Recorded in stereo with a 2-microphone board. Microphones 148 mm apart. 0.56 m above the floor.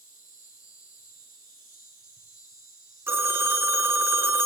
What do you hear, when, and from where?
0.0 s an insect: 80° left, 5 m
3.1 s a phone ringing: 15° right (ahead or behind), 1.0 m